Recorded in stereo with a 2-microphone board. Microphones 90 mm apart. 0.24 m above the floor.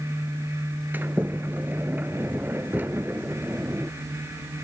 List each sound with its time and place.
0.9 s a sliding door: 20° right (ahead or behind), 0.7 m